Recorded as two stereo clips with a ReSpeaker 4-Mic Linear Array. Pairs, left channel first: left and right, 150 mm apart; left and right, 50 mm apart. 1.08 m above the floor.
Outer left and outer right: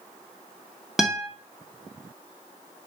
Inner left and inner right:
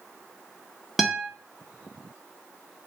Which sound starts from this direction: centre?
A guitar, at 1.0 s.